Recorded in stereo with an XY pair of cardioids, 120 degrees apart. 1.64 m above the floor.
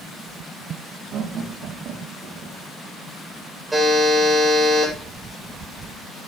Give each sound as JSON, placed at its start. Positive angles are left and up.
{"t": 1.1, "sound": "laughter", "azimuth_deg": -55, "distance_m": 3.0}
{"t": 3.7, "sound": "a buzzer", "azimuth_deg": -10, "distance_m": 8.0}